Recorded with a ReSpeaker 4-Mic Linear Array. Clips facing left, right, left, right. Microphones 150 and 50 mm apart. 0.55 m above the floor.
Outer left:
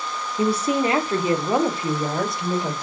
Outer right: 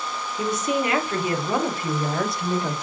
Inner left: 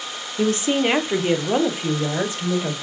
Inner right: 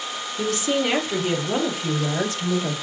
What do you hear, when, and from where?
0.4 s a woman speaking: 30° left (ahead or behind), 0.7 m; by 2.7 s 20° left (ahead or behind), 1.6 m